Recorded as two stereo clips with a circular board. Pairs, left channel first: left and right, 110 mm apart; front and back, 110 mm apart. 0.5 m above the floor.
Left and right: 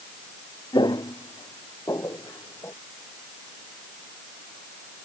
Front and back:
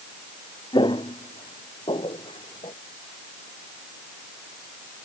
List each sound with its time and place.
0.7 s footsteps: 45° left; by 2.7 s 30° left